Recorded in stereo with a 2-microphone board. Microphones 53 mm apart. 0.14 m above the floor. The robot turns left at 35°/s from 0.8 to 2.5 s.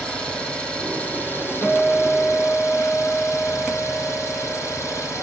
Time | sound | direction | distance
0.0 | an engine running | 165° left | 4 m
1.6 | a guitar | 170° left | 2 m